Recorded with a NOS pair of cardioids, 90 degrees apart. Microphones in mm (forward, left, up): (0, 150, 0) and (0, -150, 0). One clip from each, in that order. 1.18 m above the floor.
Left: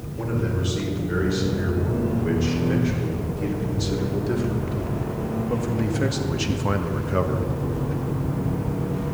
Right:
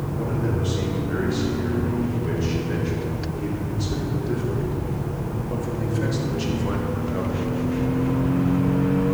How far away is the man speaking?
About 5.5 m.